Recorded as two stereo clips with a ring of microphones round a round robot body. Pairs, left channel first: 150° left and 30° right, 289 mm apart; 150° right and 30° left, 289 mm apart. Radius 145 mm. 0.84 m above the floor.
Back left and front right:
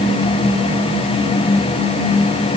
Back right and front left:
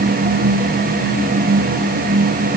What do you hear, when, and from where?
Only background noise.